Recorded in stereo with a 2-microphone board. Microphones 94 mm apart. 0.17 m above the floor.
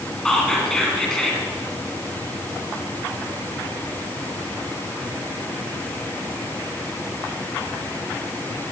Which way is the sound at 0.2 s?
5° left (ahead or behind).